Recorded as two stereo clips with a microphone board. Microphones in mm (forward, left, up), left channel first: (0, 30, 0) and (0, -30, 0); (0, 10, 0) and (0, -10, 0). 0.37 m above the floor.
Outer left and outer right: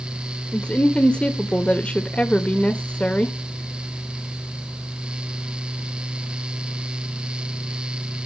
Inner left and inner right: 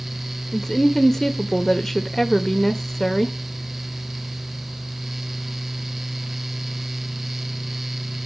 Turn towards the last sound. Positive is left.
turn(degrees=20)  # may be behind; listen again after turning